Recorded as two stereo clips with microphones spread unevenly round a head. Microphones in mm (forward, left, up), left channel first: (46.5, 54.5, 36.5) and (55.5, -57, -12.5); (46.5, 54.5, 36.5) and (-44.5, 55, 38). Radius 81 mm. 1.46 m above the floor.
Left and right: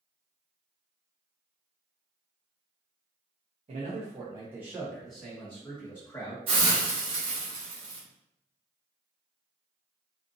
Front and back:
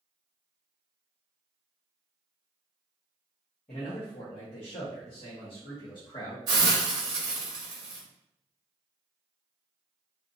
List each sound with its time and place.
3.7 s a man speaking: 50° right, 0.7 m; by 6.4 s 35° left, 1.5 m
6.5 s a hiss: 125° right, 0.7 m